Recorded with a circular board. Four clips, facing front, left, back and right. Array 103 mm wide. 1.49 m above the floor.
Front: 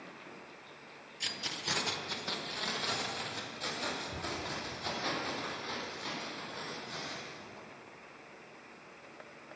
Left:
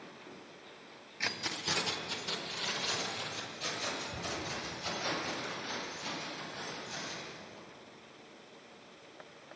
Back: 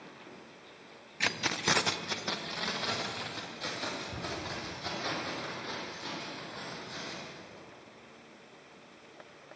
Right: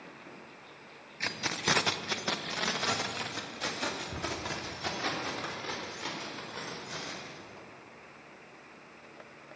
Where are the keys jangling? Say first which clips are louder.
Right 5 dB, back 10 dB; straight behind, 0.6 m; by 7.7 s 90° right, 5.5 m.